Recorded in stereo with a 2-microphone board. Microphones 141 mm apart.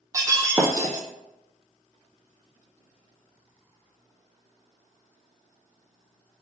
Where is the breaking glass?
25° right (ahead or behind), 0.6 m.